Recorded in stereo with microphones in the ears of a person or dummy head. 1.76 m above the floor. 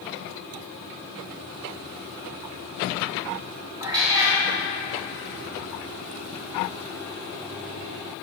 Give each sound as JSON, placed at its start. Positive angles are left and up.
{"t": 3.8, "sound": "a cat meowing", "side_deg": -25, "distance_m": 1.9}